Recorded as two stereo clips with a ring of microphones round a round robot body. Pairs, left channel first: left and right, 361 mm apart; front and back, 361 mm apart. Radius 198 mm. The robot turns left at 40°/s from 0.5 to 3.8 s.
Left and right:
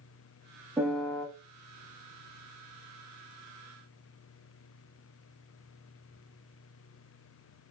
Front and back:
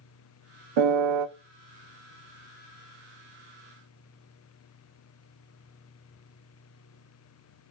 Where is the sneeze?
I don't hear a sneeze.